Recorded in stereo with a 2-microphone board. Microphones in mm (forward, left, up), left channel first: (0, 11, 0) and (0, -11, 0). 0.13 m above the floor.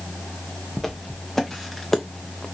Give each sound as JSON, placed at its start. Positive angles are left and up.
{"t": 0.8, "sound": "footsteps", "side_deg": 15, "distance_m": 1.4}